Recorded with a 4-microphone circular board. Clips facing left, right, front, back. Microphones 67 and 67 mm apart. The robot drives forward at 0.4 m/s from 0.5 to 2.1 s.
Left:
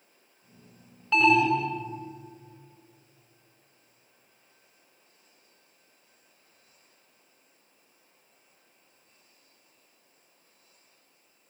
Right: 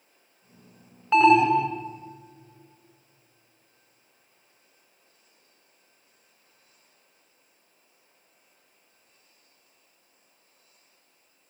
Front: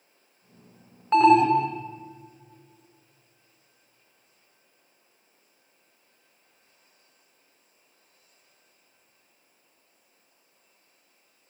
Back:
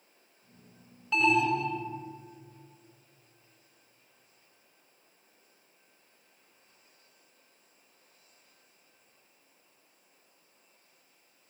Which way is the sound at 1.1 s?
30° right.